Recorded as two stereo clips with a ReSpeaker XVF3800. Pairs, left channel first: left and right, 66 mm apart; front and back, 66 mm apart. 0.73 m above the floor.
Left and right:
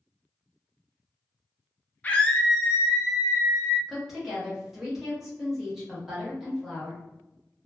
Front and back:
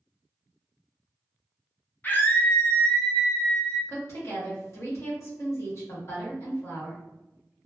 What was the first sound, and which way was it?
A scream, 40° left.